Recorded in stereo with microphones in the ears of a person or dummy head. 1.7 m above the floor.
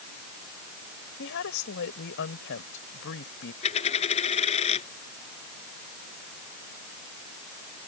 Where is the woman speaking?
70° left (ahead or behind).